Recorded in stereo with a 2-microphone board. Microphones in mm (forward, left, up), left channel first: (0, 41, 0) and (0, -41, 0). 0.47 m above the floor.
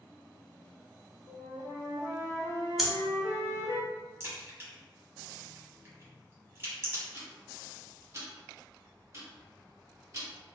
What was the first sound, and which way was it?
A flute, 45° left (ahead or behind).